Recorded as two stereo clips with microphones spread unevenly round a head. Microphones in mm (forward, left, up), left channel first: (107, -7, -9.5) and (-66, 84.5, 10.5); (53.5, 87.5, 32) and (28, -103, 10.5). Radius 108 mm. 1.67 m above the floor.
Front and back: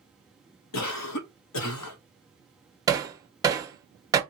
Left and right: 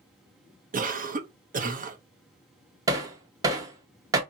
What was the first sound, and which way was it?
A cough, 45° right.